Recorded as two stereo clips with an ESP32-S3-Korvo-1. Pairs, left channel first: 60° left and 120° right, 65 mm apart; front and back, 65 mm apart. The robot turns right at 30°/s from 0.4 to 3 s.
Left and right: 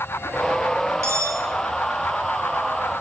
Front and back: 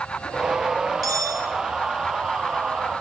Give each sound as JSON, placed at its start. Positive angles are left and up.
{"t": 1.0, "sound": "cutlery clinking", "azimuth_deg": -165, "distance_m": 4.5}